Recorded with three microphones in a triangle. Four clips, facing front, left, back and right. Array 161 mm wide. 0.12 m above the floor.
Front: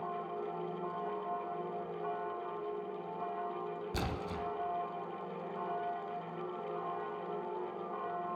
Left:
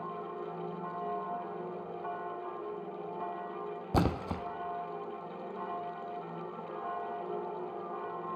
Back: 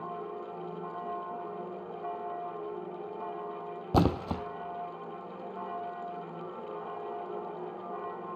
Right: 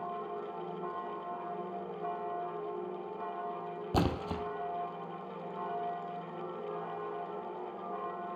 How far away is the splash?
About 0.5 m.